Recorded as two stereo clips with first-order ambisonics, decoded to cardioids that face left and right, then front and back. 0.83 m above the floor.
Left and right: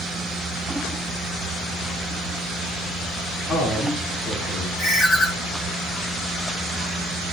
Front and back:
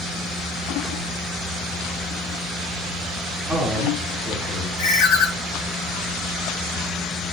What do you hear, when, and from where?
3.5 s a man speaking: 115° left, 1.7 m
4.8 s a ringtone: 20° left, 0.6 m